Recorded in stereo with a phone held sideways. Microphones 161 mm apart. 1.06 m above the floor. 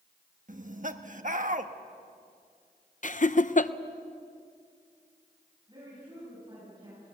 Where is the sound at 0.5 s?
55° right (ahead or behind), 1.4 m.